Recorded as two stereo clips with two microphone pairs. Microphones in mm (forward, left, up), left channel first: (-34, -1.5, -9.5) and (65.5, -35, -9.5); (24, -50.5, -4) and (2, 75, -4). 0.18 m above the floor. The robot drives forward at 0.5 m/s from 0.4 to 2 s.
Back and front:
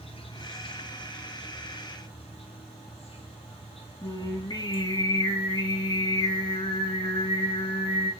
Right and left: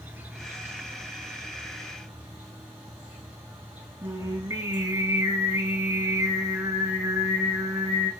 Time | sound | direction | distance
0.0 | an insect | 170° left | 0.8 m
4.0 | singing | 155° left | 0.9 m